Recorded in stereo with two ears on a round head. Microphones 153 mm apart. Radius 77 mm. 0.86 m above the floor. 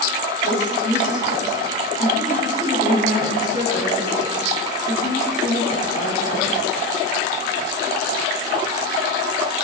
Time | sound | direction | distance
0.4 | a woman speaking | 45° left (ahead or behind) | 6.5 m